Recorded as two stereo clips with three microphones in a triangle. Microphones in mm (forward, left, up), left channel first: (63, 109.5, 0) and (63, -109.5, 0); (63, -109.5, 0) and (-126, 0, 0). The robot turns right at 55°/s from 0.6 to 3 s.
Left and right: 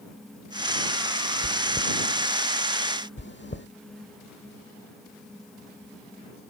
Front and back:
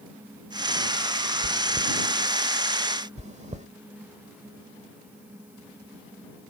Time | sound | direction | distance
1.4 | chewing | 75° right | ?
3.2 | chewing | 100° left | ?